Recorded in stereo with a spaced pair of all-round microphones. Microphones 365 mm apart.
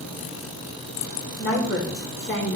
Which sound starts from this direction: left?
A woman speaking, at 1.4 s.